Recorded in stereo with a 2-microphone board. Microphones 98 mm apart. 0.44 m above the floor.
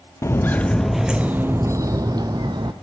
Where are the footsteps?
30° left (ahead or behind), 0.7 m; by 2.7 s 50° right (ahead or behind), 1.2 m.